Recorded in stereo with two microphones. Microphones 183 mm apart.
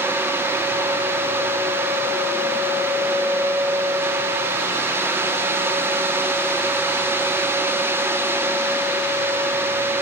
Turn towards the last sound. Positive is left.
No sound to turn to.